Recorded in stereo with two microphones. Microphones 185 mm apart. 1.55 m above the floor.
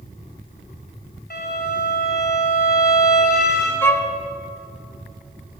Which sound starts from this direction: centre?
A violin, at 3.8 s.